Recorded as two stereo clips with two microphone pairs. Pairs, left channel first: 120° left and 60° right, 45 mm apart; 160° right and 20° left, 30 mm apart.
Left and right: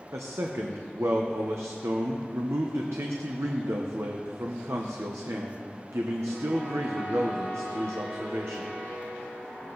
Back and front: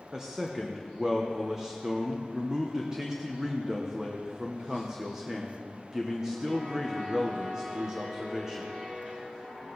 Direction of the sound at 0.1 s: 50° right.